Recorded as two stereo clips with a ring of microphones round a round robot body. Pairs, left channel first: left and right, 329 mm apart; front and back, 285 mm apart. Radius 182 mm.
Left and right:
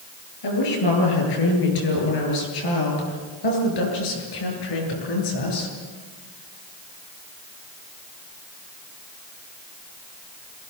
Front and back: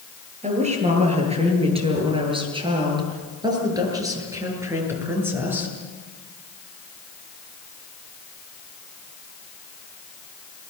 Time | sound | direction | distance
0.4 | a woman speaking | 115° left | 9.5 m